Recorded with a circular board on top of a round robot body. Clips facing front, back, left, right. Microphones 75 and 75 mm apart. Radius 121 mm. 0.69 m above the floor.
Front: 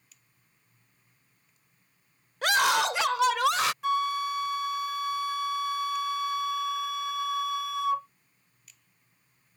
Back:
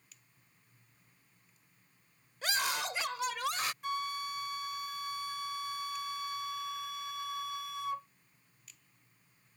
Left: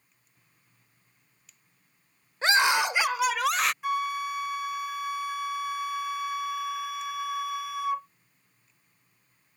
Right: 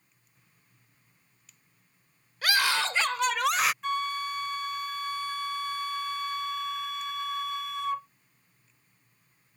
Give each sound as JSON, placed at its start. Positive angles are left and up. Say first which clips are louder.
{"t": 2.4, "sound": "a scream", "louder": "front 11 dB, left 4 dB", "azimuth_deg": 25}
{"t": 3.8, "sound": "a flute", "louder": "front 10 dB, left 2 dB", "azimuth_deg": 5}